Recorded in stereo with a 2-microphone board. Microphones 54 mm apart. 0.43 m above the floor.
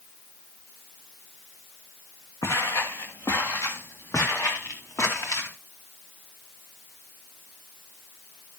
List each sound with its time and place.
2.4 s footsteps: 80° left, 2 m; by 5.5 s 70° left (ahead or behind), 4 m